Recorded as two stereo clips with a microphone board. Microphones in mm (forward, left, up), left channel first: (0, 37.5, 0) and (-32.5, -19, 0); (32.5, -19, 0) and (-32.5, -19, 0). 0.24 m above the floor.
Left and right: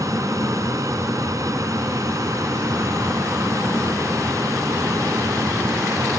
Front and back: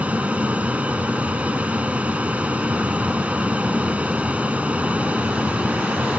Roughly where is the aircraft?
Behind right.